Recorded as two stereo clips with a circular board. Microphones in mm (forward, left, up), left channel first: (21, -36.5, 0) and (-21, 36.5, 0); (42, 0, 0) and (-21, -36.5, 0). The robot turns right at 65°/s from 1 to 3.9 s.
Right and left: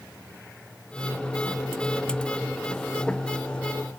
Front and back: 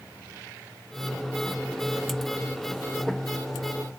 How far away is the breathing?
No breathing in this recording.